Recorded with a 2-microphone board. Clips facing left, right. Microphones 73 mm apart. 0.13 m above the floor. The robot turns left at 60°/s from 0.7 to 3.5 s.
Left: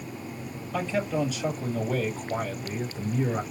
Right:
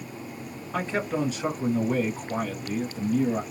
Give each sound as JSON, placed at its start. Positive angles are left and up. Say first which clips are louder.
{"t": 0.7, "sound": "a man speaking", "louder": "even", "azimuth_deg": -80, "distance_m": 2.0}